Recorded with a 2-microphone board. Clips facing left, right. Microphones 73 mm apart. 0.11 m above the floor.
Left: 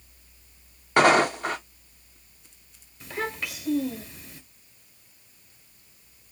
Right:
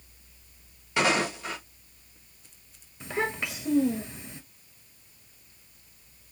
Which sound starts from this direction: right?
A child speaking, at 3.0 s.